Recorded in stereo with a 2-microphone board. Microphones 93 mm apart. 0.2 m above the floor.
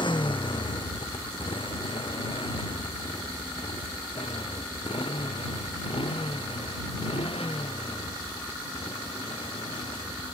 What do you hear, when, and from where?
0.0 s a motorcycle: 60° left (ahead or behind); by 10.3 s 85° left